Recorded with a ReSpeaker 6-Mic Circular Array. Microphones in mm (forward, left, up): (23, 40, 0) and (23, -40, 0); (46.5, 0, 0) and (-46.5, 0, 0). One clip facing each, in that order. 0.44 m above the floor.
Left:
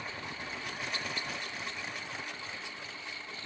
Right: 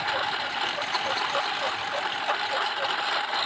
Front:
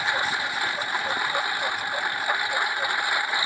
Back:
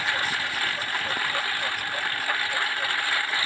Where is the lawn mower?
75° right.